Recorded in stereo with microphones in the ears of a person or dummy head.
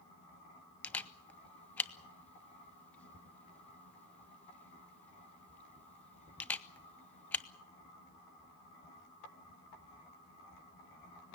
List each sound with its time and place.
0.8 s a camera shutter: 5° left (ahead or behind), 0.8 m